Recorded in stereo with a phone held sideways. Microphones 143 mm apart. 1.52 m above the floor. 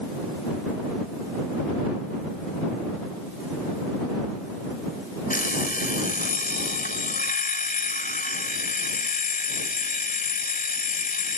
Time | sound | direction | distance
5.3 | an alarm clock | 80° left | ?